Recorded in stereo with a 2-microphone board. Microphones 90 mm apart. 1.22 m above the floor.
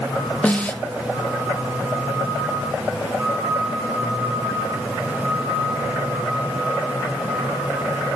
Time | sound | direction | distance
0.4 | a snare drum | 15° left (ahead or behind) | 1.0 m